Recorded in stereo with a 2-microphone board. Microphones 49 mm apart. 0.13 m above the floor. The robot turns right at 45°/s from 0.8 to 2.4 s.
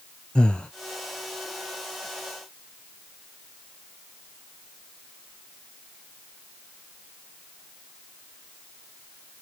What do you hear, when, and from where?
0.3 s breathing: 20° left (ahead or behind), 0.6 m